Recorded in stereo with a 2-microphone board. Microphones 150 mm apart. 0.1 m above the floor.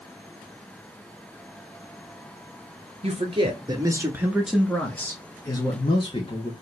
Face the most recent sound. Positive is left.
turn(degrees=45)  # may be behind; listen again after turning